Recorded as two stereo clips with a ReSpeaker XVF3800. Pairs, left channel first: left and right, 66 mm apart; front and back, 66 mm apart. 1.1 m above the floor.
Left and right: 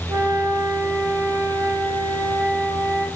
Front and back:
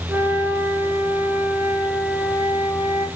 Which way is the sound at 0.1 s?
130° right.